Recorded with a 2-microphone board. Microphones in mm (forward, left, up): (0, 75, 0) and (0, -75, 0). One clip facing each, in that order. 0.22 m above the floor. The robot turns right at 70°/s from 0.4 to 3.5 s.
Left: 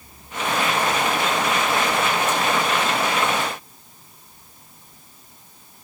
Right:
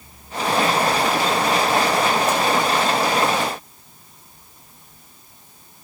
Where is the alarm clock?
I don't hear an alarm clock.